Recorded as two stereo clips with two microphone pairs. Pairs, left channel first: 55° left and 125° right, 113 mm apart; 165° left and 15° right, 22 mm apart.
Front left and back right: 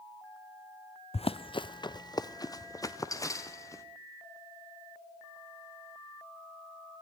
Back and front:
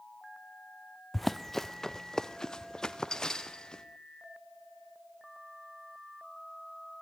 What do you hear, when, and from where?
1.1 s running footsteps: 80° left, 0.7 m; by 3.8 s 120° left, 3 m